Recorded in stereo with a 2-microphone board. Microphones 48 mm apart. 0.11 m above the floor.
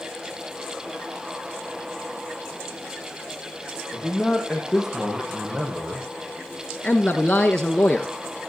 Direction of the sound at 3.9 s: Centre (ahead or behind).